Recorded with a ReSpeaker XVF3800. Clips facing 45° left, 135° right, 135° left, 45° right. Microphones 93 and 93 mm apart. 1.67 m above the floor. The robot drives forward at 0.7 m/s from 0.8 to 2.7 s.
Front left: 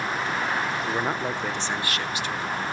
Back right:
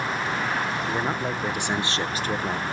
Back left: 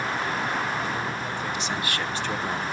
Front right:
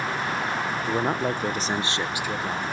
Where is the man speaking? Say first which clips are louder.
Even, front right 5 dB; 30° right, 1.0 m; by 2.6 s 145° right, 0.8 m.